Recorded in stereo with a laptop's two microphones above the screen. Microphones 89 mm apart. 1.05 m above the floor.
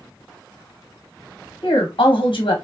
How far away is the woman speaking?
About 1.3 m.